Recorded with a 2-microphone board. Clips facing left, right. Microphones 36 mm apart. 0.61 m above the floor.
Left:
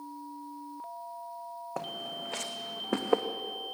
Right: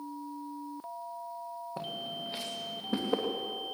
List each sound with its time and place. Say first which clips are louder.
1.8 s footsteps: left 2 dB; 75° left (ahead or behind), 2 m; by 3.2 s 60° left (ahead or behind), 2 m